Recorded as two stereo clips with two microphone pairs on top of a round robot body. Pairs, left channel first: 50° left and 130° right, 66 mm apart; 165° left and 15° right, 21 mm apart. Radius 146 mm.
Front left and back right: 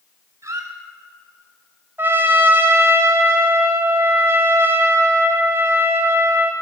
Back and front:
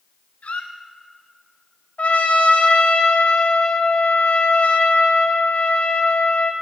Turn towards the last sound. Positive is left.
turn(degrees=170)